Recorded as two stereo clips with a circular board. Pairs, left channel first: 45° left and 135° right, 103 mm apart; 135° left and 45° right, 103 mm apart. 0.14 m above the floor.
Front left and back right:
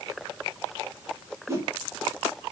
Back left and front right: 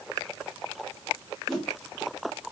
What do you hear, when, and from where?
1.5 s a whoosh: 135° right, 1.3 m